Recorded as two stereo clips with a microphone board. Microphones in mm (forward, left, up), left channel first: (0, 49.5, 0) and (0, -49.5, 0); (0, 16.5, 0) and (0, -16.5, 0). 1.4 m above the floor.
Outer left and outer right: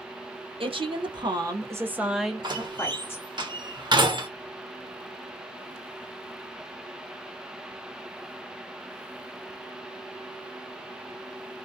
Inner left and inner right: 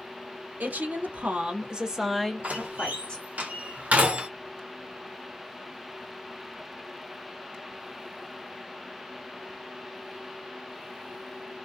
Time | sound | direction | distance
0.6 | a woman speaking | 65° right (ahead or behind) | 0.9 m
2.4 | a door slam | 50° right (ahead or behind) | 0.7 m